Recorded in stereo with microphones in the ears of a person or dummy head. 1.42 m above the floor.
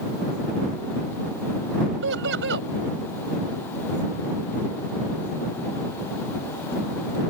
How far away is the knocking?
No knocking in this recording.